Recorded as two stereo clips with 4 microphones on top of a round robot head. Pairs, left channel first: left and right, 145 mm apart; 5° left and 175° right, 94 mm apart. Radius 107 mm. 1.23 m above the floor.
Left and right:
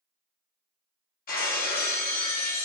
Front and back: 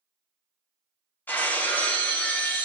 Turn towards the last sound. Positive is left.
turn(degrees=75)